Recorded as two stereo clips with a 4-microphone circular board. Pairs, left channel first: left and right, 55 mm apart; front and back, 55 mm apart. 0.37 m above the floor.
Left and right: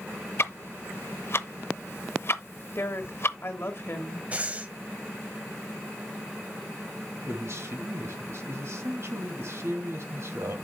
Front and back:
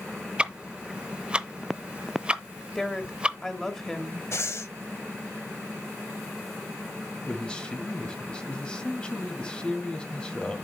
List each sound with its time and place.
0.4 s ticking: 115° left, 0.6 m
2.8 s a woman speaking: 80° left, 1.3 m
4.3 s breathing: 30° right, 0.9 m
7.3 s a man speaking: 70° right, 1.8 m